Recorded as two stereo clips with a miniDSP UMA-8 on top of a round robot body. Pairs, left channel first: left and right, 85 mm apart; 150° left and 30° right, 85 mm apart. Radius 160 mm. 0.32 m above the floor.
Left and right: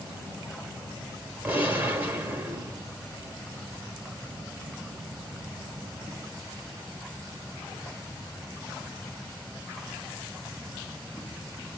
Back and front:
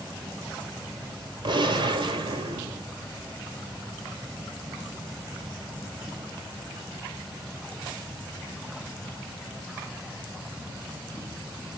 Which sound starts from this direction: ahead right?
A gunshot, at 1.4 s.